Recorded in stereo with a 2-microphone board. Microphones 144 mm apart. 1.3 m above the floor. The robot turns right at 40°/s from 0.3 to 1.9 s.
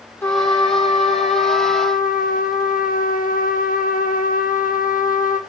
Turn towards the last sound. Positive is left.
turn(degrees=85)